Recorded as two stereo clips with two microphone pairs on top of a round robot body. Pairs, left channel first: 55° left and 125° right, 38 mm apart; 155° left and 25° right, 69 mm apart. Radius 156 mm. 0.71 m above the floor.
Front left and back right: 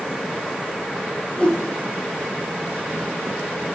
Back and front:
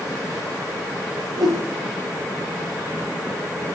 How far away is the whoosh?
About 4.5 m.